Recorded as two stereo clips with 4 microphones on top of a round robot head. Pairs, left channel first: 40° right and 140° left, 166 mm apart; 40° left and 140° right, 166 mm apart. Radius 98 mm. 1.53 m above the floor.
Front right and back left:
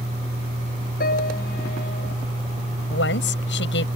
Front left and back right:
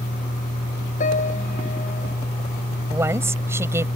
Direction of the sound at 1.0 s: 5° right.